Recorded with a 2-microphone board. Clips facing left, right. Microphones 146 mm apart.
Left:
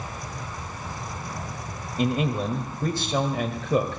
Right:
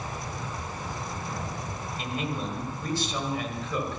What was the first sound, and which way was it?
A man speaking, 50° left (ahead or behind).